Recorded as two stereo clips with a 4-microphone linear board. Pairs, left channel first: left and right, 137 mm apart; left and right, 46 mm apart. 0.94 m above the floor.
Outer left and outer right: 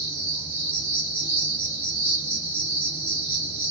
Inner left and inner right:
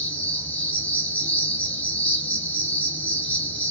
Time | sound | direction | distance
0.0 | an insect | 35° left (ahead or behind) | 0.9 m